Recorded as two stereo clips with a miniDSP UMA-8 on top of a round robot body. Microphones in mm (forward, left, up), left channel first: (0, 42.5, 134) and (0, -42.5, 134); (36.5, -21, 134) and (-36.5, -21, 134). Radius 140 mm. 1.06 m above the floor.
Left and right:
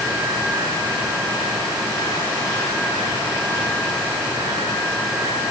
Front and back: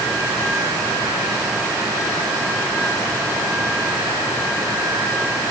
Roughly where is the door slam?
No door slam in this recording.